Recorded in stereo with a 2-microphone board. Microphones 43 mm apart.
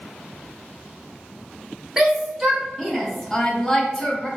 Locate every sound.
2.0 s a shout: 10° right (ahead or behind), 0.9 m; by 4.3 s 20° left (ahead or behind), 1.0 m